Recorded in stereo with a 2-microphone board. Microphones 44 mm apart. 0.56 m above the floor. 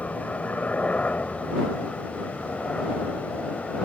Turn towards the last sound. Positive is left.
turn(degrees=25)  # may be behind; listen again after turning